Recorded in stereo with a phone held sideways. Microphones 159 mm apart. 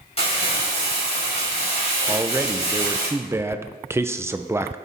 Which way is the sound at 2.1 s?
15° right (ahead or behind).